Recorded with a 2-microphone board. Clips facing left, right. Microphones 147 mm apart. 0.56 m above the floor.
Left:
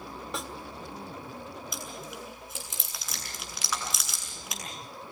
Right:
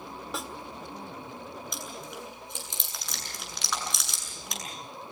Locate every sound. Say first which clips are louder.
0.3 s a snare drum: even; centre (ahead or behind), 1.5 m
1.7 s chewing: even; 5° left (ahead or behind), 7.5 m